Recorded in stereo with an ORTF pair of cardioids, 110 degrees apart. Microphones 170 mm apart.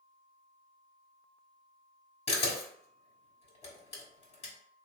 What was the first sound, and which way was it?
A camera shutter, 40° left.